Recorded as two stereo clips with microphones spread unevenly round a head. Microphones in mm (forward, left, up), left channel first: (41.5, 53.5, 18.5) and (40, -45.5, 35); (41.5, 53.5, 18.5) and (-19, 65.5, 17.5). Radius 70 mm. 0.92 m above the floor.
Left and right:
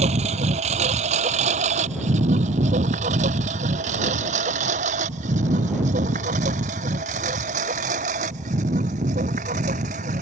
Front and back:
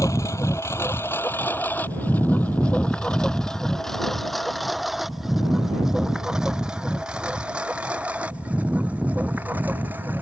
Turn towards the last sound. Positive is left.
turn(degrees=-115)